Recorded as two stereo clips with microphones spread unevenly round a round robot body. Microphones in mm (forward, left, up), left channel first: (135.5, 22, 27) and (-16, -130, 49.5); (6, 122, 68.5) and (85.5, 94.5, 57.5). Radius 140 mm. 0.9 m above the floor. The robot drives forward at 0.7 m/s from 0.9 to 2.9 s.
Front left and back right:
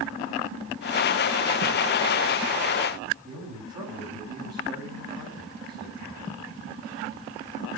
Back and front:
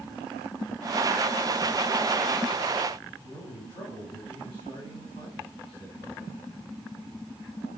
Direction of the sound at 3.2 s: 145° right.